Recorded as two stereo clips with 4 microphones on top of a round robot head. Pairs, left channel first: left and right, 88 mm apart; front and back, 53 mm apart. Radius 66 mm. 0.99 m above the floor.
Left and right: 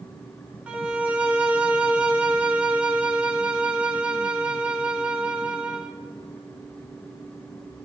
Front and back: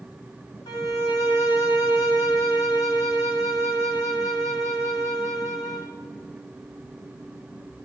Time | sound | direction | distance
0.7 | a violin | 15° right | 1.7 m